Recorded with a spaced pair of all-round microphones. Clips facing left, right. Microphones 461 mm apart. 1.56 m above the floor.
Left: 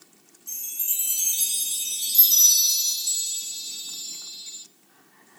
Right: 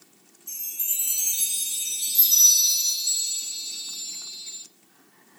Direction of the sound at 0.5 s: 35° left (ahead or behind).